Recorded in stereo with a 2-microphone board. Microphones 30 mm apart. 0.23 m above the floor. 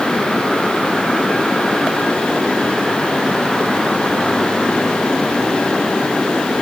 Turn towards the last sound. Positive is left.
No sound to turn to.